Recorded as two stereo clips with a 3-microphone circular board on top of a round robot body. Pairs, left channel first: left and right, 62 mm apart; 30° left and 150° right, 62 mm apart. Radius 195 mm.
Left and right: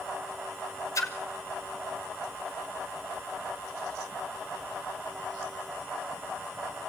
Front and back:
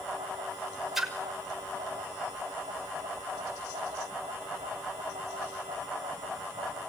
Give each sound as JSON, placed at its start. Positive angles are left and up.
{"t": 0.9, "sound": "a splash", "azimuth_deg": 125, "distance_m": 2.0}